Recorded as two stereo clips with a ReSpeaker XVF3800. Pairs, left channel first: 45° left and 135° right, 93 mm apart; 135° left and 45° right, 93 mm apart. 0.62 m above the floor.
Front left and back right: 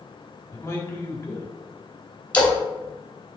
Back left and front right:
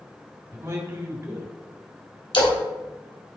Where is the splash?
120° left, 2.5 m.